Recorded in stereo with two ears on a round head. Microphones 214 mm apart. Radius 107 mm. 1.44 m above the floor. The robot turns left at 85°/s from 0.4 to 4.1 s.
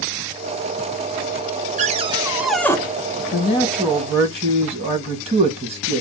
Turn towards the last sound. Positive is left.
turn(degrees=-25)